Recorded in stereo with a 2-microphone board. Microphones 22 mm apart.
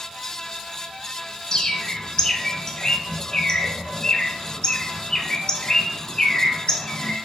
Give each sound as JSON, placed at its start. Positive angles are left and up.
{"t": 1.5, "sound": "a bird", "side_deg": 35, "distance_m": 0.6}